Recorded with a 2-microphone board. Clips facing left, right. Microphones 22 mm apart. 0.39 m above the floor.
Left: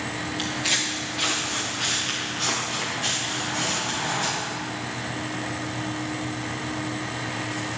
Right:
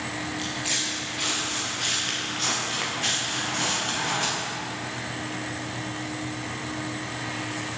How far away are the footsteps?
About 2.5 m.